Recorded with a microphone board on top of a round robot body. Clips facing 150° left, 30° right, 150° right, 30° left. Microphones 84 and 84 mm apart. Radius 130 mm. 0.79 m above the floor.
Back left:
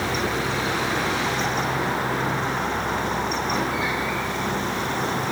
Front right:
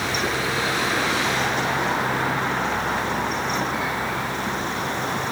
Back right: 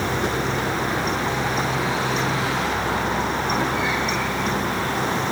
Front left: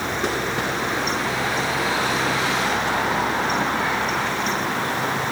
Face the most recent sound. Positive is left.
No sound to turn to.